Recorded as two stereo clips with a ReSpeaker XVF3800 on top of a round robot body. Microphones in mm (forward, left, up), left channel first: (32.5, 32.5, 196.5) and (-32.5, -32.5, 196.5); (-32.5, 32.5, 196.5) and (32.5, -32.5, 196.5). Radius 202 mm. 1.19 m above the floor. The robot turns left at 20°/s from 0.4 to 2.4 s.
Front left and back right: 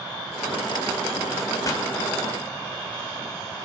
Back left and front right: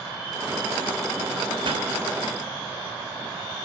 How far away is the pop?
About 2 m.